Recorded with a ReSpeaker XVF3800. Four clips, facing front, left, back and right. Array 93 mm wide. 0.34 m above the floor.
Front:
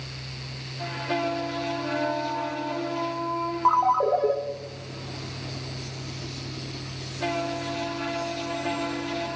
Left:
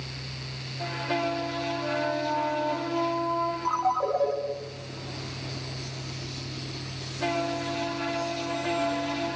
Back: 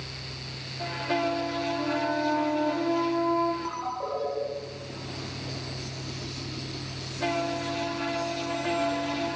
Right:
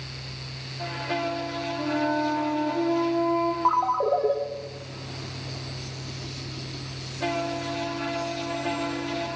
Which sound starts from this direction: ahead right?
A ringtone, at 3.6 s.